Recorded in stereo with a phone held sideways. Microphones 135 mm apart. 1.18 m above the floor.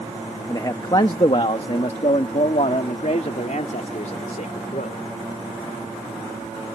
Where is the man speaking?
25° left (ahead or behind); by 5.0 s 75° left (ahead or behind).